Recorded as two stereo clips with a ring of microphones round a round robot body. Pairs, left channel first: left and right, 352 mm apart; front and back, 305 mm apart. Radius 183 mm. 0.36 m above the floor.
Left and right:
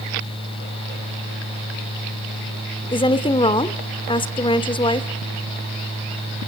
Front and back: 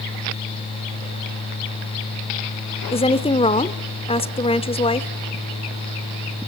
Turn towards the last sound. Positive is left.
turn(degrees=35)